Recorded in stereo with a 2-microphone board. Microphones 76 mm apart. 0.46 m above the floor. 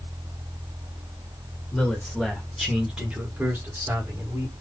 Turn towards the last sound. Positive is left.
turn(degrees=-40)  # may be behind; listen again after turning